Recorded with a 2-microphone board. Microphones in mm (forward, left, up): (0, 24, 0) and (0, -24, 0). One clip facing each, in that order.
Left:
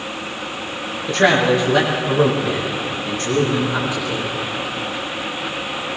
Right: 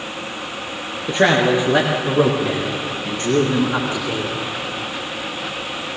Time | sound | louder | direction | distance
1.1 | a man speaking | even | 15° right (ahead or behind) | 3.5 m